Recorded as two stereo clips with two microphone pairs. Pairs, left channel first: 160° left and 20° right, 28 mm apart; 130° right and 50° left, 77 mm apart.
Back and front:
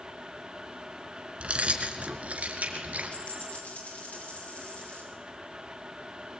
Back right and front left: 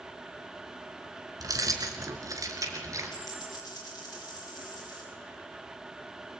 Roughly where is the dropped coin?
Behind.